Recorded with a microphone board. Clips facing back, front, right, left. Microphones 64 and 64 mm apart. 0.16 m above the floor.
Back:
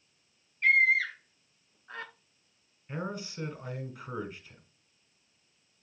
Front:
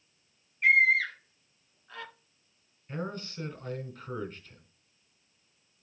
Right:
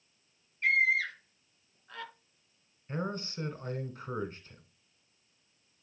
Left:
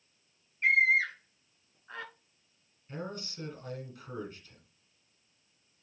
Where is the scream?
65° left, 1.1 m; by 2.1 s 145° left, 1.6 m.